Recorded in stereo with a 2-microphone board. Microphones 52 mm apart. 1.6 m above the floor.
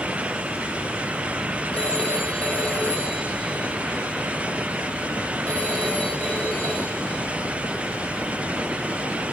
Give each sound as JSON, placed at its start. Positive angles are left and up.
{"t": 1.7, "sound": "a phone ringing", "side_deg": 25, "distance_m": 4.0}